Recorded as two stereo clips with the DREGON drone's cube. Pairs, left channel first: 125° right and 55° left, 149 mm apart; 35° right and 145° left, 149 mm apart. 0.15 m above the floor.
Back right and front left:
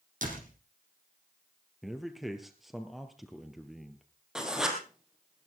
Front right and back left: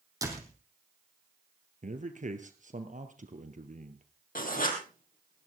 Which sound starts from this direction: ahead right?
Writing, at 4.3 s.